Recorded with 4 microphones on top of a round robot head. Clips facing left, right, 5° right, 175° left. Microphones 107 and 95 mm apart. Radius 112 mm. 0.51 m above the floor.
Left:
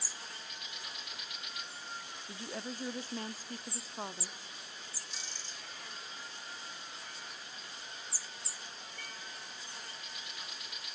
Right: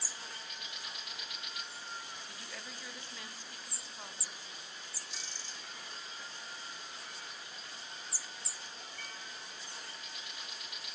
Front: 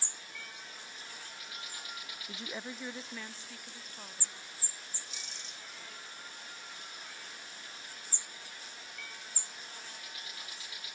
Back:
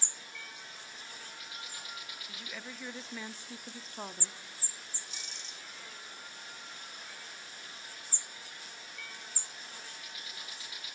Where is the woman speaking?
35° left, 0.9 m; by 4.4 s 140° left, 1.1 m.